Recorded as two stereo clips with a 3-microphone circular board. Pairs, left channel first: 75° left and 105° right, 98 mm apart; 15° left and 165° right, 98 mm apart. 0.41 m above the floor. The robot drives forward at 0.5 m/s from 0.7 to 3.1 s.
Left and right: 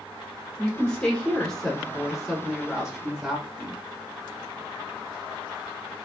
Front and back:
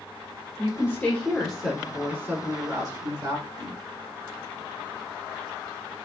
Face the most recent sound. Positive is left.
turn(degrees=175)